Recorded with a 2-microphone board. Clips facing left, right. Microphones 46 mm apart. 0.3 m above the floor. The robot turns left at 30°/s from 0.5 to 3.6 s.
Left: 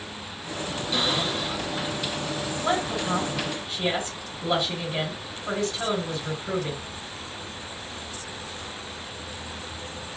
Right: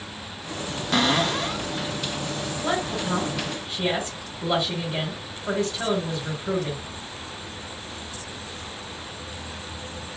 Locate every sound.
0.9 s a cupboard door: 70° right (ahead or behind), 0.7 m
2.6 s a woman speaking: centre (ahead or behind), 2.0 m; by 6.8 s 20° right (ahead or behind), 2.0 m